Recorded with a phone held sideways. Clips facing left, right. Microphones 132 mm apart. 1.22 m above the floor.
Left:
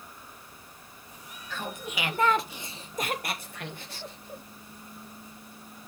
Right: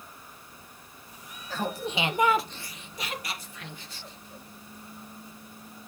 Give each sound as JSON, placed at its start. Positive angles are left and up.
{"t": 1.5, "sound": "laughter", "side_deg": -40, "distance_m": 1.2}